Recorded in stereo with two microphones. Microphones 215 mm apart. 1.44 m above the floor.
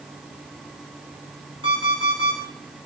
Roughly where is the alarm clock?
Left.